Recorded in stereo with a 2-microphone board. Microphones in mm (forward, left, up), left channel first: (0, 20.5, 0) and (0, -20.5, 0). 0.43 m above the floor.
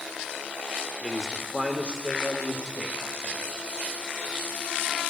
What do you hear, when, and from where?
1.0 s a man speaking: 25° left (ahead or behind), 0.9 m; by 3.5 s 60° right (ahead or behind), 2.5 m